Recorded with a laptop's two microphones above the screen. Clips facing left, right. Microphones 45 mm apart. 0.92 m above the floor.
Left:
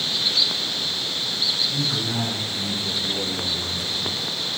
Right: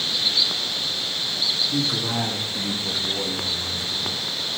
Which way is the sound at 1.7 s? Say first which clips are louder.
Right 1 dB; 75° right (ahead or behind).